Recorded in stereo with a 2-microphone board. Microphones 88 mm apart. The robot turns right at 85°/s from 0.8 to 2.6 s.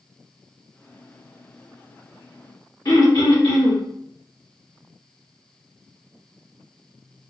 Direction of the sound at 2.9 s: 45° left (ahead or behind).